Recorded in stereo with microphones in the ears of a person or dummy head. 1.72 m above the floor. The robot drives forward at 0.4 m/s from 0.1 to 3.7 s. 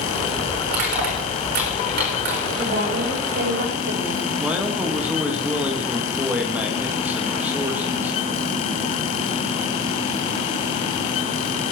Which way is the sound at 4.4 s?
15° right (ahead or behind).